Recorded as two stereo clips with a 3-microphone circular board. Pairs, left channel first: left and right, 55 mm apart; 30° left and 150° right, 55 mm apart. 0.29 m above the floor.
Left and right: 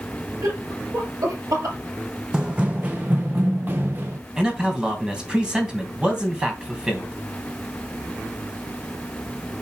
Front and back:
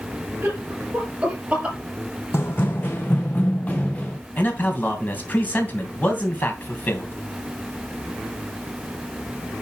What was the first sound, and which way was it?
Laughter, 90° right.